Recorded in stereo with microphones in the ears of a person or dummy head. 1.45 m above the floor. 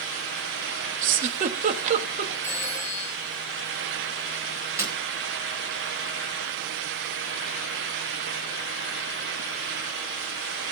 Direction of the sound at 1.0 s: 40° right (ahead or behind).